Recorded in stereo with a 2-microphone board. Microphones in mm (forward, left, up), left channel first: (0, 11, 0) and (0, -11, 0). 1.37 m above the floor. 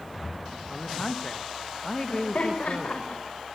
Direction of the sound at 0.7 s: 15° left (ahead or behind).